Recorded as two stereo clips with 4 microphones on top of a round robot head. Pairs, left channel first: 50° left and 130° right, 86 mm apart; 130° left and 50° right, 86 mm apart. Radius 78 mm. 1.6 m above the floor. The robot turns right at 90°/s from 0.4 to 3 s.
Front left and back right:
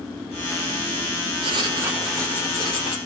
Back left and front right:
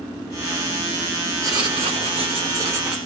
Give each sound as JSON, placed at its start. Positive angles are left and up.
{"t": 1.4, "sound": "writing", "azimuth_deg": -105, "distance_m": 4.0}